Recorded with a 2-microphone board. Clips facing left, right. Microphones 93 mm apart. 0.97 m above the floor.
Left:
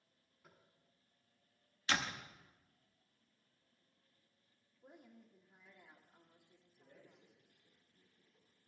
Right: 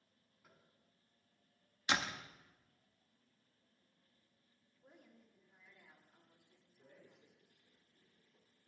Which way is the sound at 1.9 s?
15° right (ahead or behind).